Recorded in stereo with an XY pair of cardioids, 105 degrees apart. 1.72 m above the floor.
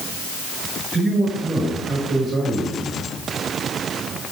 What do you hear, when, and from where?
0.9 s a man speaking: 35° right, 6.5 m